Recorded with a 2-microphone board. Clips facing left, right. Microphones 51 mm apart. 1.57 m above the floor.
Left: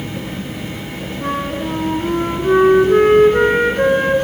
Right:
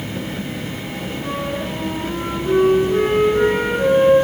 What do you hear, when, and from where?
1.2 s a flute: 60° left (ahead or behind), 3.5 m